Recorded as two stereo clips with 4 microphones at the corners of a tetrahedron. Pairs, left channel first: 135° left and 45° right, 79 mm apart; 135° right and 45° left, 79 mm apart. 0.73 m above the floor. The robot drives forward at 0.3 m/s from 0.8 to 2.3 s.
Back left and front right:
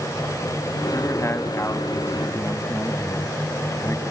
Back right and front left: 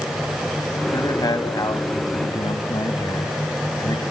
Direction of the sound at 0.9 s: 170° right.